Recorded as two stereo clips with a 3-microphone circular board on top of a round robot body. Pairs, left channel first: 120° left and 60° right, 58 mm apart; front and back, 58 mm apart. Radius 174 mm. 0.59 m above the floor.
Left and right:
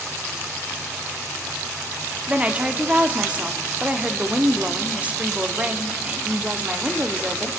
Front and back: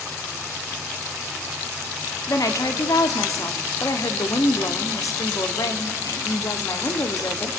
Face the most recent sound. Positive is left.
turn(degrees=5)